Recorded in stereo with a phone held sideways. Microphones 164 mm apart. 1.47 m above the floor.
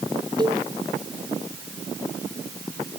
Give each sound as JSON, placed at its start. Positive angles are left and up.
{"t": 0.4, "sound": "a cowbell", "side_deg": -25}